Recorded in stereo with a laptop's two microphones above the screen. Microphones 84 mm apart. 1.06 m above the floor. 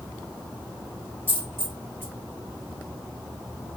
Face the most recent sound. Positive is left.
turn(degrees=-25)  # may be behind; listen again after turning